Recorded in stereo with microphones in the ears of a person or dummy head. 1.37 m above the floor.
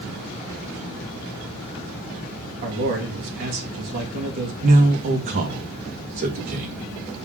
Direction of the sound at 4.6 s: 50° right (ahead or behind).